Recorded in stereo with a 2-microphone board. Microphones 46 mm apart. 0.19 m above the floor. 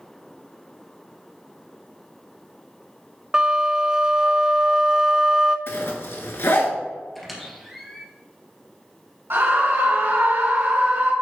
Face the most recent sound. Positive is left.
turn(degrees=-55)  # may be behind; listen again after turning